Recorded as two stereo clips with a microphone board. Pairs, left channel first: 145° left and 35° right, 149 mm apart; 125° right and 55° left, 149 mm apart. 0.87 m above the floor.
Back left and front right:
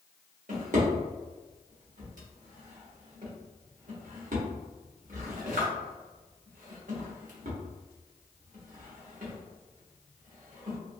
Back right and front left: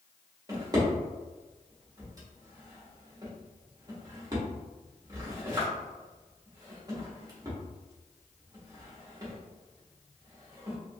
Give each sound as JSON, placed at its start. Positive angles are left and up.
{"t": 0.5, "sound": "a drawer", "azimuth_deg": -10, "distance_m": 1.0}